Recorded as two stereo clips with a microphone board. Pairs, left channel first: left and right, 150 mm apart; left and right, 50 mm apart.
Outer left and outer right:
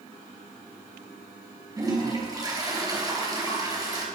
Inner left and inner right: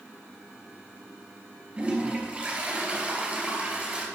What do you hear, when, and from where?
1.8 s a toilet flushing: 25° right (ahead or behind), 3.5 m